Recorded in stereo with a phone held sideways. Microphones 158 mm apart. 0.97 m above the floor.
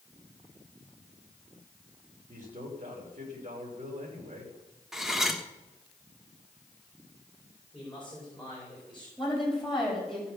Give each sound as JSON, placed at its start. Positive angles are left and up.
{"t": 2.3, "sound": "a man speaking", "side_deg": -50, "distance_m": 3.0}
{"t": 4.9, "sound": "cutlery clinking", "side_deg": 0, "distance_m": 1.4}
{"t": 7.7, "sound": "a man speaking", "side_deg": 5, "distance_m": 5.0}
{"t": 9.2, "sound": "a woman speaking", "side_deg": 0, "distance_m": 5.5}